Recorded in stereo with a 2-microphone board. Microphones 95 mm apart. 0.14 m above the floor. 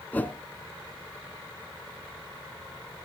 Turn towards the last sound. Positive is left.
turn(degrees=15)  # may be behind; listen again after turning